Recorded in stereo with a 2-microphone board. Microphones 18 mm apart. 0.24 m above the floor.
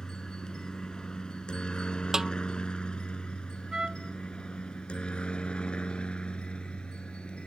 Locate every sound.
0.0 s a helicopter: 35° left (ahead or behind); by 7.5 s 70° left (ahead or behind)
2.1 s a snare drum: 35° right (ahead or behind)
3.7 s a trumpet: 45° right (ahead or behind)